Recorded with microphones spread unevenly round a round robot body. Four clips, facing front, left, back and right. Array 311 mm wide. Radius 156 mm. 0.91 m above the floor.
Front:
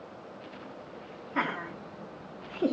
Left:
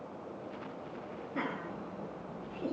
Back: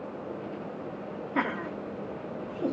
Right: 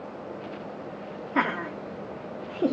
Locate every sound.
1.4 s laughter: 90° right, 2.5 m; by 2.7 s 55° right, 1.9 m